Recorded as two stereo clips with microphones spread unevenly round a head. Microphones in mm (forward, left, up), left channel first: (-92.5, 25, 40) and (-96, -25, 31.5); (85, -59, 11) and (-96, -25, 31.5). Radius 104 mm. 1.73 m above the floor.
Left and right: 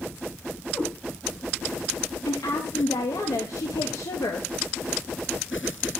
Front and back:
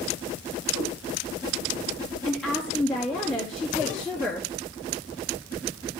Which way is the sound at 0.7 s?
125° left.